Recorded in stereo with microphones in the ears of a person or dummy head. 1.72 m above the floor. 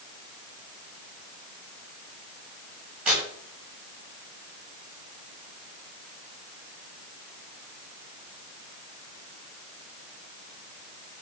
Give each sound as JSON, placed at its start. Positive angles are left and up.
{"t": 3.0, "sound": "tearing paper", "side_deg": -10, "distance_m": 7.5}